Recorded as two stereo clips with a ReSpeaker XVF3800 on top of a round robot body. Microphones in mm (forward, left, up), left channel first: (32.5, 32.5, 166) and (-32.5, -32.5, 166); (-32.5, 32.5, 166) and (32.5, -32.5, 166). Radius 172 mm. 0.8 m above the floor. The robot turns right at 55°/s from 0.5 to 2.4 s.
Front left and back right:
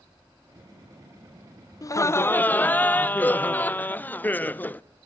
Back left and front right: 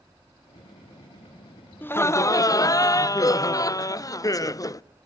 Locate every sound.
1.8 s laughter: 75° left, 0.6 m; by 4.8 s 105° left, 0.6 m